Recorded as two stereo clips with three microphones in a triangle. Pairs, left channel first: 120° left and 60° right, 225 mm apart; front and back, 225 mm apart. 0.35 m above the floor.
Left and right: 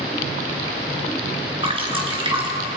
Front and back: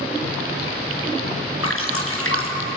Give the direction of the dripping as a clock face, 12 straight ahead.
12 o'clock.